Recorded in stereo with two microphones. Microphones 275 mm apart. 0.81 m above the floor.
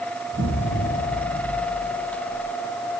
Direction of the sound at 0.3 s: 30° right (ahead or behind).